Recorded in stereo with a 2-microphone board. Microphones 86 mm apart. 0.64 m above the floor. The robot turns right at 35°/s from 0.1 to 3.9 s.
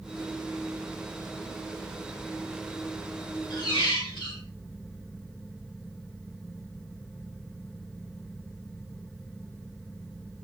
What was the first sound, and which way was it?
A squeak, 65° left (ahead or behind).